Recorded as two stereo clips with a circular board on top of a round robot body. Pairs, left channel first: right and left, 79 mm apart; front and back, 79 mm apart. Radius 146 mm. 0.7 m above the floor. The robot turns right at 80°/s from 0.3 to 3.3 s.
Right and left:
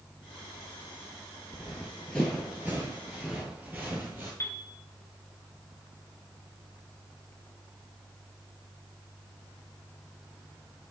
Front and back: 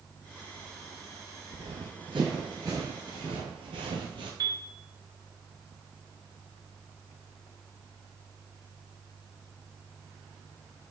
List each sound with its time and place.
1.5 s running footsteps: 165° left, 0.9 m; by 4.3 s 155° left, 1.3 m
4.4 s a piano: 145° right, 1.4 m